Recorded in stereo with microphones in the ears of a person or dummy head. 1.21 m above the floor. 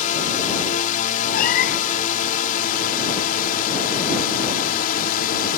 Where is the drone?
40° left (ahead or behind); by 5.6 s 45° left (ahead or behind).